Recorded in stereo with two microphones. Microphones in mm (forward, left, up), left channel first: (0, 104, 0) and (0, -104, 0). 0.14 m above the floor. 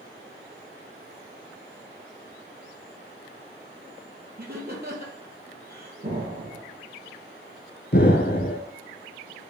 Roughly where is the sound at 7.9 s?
Left.